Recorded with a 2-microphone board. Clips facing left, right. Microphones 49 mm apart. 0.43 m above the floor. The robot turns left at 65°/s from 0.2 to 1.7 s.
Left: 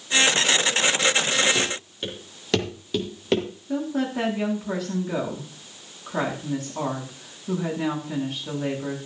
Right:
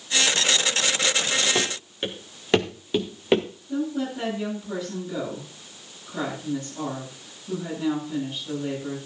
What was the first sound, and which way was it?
Running footsteps, 40° right (ahead or behind).